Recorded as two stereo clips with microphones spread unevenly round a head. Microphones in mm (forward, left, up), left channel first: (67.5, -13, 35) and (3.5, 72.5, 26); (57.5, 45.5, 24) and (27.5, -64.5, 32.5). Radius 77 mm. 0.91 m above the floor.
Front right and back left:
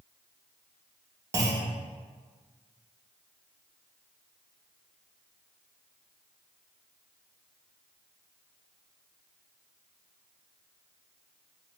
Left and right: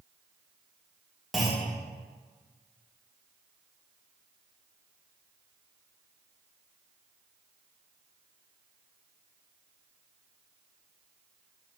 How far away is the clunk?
About 0.5 m.